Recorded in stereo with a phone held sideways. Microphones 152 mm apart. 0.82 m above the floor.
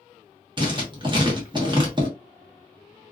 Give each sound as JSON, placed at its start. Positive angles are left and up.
{"t": 0.6, "sound": "writing", "side_deg": -30, "distance_m": 0.9}